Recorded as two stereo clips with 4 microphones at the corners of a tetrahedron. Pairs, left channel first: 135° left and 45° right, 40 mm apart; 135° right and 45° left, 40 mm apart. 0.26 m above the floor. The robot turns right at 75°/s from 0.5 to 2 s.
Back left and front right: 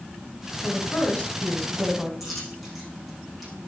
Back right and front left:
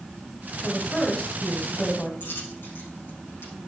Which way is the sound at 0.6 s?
130° left.